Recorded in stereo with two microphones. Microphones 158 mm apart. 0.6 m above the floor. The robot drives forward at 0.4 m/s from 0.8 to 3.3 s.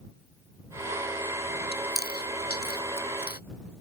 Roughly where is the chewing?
Left.